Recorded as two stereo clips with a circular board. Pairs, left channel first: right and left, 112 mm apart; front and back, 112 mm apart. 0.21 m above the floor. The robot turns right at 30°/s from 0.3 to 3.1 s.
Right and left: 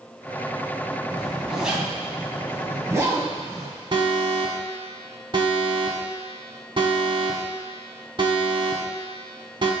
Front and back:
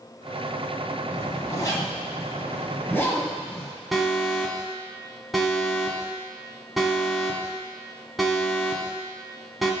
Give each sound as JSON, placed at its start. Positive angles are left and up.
{"t": 1.1, "sound": "a zipper", "azimuth_deg": 0, "distance_m": 1.7}
{"t": 3.9, "sound": "an alarm", "azimuth_deg": 90, "distance_m": 1.3}